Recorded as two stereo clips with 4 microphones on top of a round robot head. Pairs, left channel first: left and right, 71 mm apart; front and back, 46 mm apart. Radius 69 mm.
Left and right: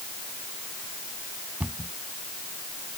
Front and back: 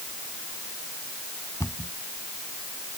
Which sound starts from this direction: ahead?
A cupboard door, at 1.6 s.